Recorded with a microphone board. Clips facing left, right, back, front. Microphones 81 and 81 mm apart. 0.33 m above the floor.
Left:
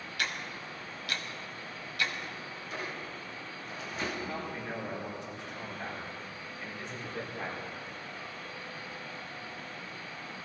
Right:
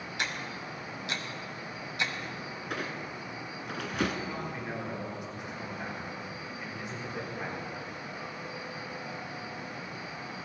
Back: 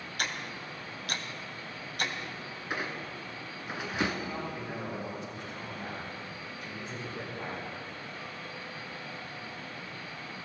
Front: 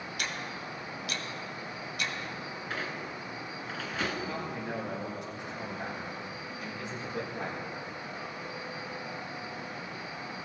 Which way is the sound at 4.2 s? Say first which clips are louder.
Right 1 dB, front 1 dB; 10° right.